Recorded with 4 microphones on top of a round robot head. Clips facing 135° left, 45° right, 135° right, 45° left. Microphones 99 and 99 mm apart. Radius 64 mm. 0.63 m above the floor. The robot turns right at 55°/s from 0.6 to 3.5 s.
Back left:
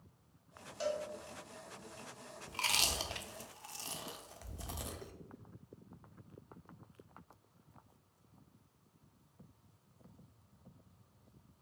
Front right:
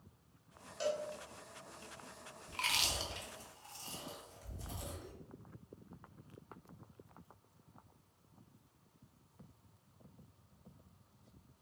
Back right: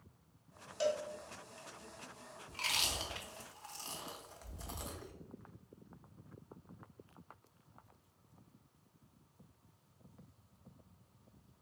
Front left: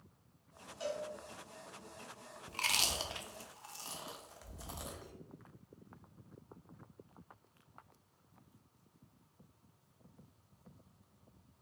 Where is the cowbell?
135° right, 0.6 m; by 1.1 s 125° right, 0.6 m.